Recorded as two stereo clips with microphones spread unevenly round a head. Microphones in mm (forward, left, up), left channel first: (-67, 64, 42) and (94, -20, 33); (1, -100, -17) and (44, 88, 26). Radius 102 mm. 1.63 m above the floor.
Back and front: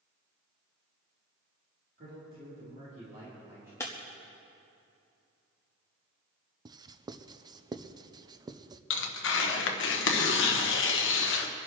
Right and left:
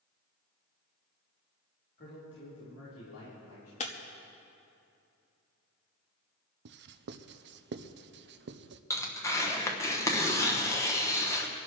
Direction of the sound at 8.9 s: Straight behind.